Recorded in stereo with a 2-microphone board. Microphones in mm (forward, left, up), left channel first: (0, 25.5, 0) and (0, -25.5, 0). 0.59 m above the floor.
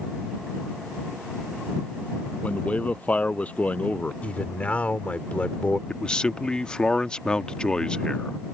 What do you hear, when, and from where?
2.4 s a man speaking: 30° left (ahead or behind)
4.2 s a man speaking: 30° left (ahead or behind)
5.9 s a man speaking: 15° left (ahead or behind)